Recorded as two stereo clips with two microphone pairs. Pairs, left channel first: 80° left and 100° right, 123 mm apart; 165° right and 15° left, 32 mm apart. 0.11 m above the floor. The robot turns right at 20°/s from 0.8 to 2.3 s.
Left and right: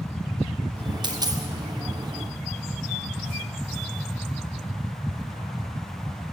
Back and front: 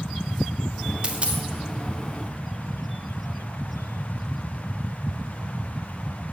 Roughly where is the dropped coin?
Ahead right.